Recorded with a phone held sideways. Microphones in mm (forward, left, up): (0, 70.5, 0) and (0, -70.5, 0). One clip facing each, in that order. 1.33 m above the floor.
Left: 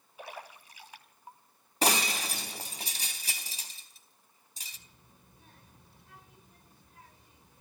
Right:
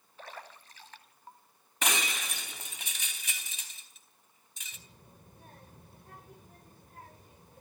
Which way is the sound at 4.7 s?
50° right (ahead or behind).